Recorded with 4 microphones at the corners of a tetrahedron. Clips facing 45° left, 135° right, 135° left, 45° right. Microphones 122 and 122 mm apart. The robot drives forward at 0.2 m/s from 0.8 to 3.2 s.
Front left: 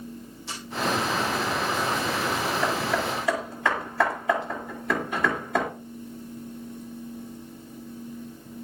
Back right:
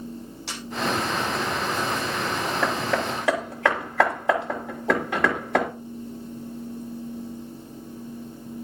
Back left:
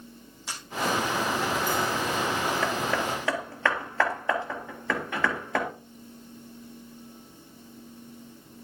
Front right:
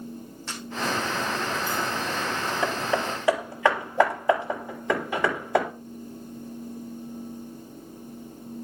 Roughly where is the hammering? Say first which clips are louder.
Back right 1 dB, front right 1 dB; behind right.